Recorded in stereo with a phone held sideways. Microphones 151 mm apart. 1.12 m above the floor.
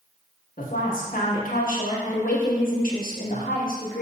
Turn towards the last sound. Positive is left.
turn(degrees=60)  # may be behind; listen again after turning